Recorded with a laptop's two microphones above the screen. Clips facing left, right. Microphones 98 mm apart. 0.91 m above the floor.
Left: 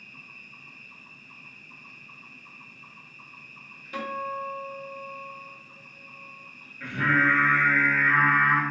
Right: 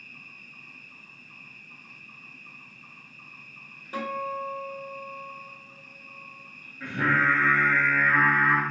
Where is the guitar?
30° right (ahead or behind), 1.2 m.